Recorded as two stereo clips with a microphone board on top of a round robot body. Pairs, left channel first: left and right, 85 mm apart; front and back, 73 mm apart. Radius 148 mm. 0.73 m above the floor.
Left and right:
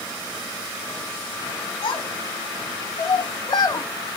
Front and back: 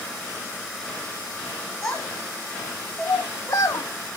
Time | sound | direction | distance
1.8 | a child speaking | 85° left | 2 m